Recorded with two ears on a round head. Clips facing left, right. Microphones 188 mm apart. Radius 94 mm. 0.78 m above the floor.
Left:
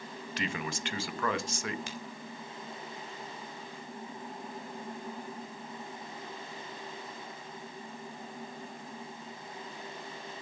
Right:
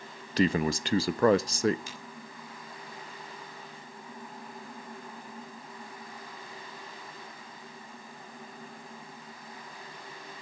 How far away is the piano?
I don't hear a piano.